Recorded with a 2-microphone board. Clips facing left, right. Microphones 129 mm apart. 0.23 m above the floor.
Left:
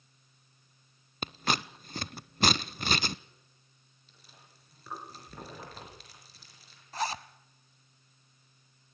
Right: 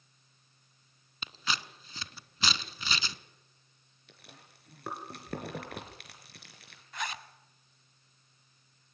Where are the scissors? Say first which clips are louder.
Left 6 dB; 55° left (ahead or behind), 0.7 m.